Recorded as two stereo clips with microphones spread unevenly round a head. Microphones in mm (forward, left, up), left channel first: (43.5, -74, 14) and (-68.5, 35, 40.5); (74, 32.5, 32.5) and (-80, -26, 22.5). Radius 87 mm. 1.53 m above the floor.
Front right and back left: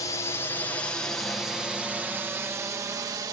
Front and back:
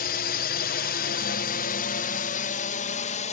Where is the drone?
15° left; by 3.3 s 65° left.